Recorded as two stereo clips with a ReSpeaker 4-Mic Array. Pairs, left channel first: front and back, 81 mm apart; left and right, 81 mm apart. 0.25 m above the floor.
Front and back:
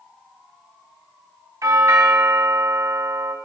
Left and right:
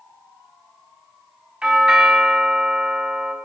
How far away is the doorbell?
About 2 m.